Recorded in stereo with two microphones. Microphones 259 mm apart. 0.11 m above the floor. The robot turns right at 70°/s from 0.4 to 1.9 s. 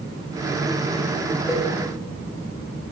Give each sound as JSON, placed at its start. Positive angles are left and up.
{"t": 1.5, "sound": "a cowbell", "side_deg": 10, "distance_m": 5.5}